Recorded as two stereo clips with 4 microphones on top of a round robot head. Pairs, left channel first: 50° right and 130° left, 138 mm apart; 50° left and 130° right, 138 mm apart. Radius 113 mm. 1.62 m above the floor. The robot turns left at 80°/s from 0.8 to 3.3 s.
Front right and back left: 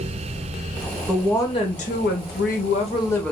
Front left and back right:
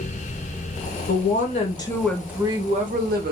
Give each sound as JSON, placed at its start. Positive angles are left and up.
{"t": 1.1, "sound": "a woman speaking", "azimuth_deg": 45, "distance_m": 1.2}